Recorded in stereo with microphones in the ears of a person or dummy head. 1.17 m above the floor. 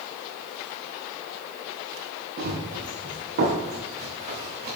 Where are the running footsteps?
50° right (ahead or behind), 5.5 m; by 4.8 s 30° right (ahead or behind), 4.5 m.